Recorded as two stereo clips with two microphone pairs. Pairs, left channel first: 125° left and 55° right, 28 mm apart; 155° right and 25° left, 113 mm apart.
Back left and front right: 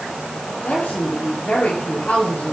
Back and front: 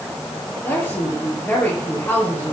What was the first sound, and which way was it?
A woman speaking, 130° left.